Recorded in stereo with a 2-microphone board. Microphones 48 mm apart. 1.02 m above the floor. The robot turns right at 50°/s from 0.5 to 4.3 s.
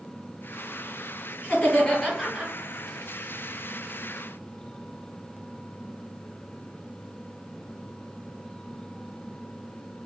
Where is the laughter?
150° left, 1.6 m; by 2.5 s 160° right, 1.6 m.